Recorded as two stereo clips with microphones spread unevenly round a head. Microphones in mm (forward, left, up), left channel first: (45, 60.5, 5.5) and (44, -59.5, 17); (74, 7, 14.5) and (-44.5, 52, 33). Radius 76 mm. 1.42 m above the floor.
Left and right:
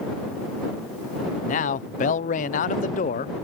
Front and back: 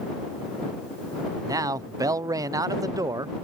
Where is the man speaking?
95° left.